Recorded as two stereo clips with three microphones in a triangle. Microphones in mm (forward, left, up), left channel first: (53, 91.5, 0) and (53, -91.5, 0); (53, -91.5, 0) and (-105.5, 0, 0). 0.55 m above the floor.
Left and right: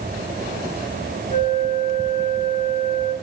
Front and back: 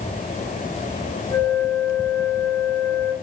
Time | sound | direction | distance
1.3 | a flute | 35° left | 7 m